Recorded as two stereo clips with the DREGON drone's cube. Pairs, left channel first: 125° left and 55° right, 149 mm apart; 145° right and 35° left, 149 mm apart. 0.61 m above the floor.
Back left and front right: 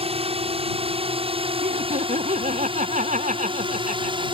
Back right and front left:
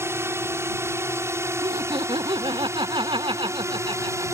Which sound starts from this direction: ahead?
Laughter, at 1.6 s.